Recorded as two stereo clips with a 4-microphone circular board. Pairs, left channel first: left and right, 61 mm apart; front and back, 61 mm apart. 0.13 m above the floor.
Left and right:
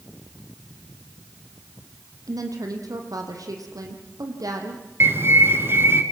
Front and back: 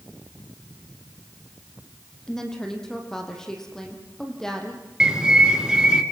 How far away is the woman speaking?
About 5 m.